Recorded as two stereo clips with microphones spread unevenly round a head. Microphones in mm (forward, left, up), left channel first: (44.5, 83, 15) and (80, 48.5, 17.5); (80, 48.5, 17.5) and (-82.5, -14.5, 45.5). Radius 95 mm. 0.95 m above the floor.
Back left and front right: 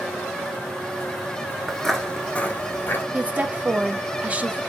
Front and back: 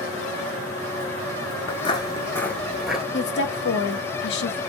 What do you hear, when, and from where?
1.7 s footsteps: 45° left, 0.9 m; by 3.0 s 130° left, 1.1 m
3.1 s a woman speaking: 20° left, 1.1 m